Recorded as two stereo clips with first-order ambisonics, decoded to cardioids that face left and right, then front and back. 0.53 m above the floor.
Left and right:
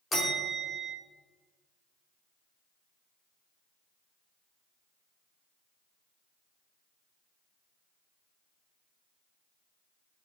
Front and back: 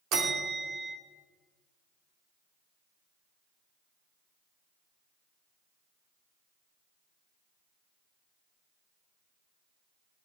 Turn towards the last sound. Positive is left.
turn(degrees=165)